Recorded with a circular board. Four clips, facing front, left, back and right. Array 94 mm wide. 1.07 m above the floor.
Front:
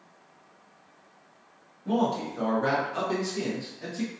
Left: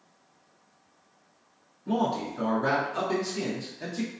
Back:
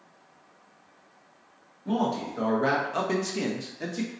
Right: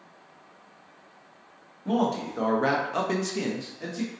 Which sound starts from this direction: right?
A man speaking, at 1.9 s.